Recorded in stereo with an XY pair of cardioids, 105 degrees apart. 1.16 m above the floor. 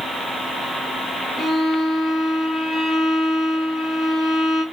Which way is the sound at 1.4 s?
55° left.